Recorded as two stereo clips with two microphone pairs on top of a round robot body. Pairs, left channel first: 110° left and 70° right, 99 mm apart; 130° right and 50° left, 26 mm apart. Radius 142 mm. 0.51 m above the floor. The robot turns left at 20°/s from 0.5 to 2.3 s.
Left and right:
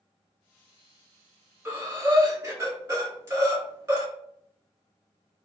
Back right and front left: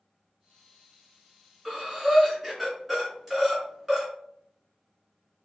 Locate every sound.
1.6 s breathing: 10° right, 1.5 m; by 4.1 s 25° right, 1.5 m